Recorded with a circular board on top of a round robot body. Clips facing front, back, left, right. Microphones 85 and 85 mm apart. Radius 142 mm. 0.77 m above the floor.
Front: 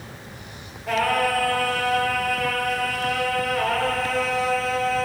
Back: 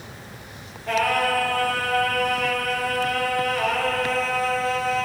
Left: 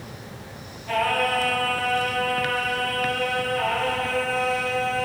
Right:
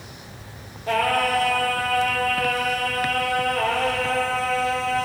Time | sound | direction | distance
0.9 | singing | 85° right | 1.7 m